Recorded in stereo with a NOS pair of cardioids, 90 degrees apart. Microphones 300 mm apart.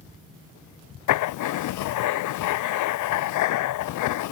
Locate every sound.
1.1 s writing: 65° left